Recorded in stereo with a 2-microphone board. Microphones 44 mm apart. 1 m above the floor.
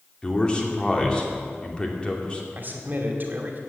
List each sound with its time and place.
0.2 s a man speaking: 20° left (ahead or behind), 2.5 m
2.5 s a man speaking: 45° right (ahead or behind), 2.5 m